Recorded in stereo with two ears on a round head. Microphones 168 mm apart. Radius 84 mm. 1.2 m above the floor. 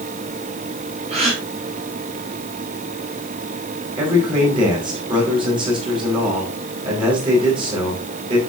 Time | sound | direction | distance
1.1 | a gasp | 35° right (ahead or behind) | 8.5 m
4.0 | a man speaking | 25° right (ahead or behind) | 8.5 m